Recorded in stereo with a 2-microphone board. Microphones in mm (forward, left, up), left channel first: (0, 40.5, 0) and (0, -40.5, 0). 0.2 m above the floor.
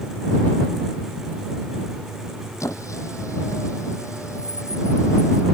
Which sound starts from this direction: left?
A squeak, at 2.6 s.